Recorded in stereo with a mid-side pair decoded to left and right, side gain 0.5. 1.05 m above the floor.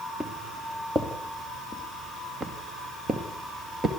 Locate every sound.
0.2 s footsteps: 15° right, 5 m; by 3.9 s 35° right, 6 m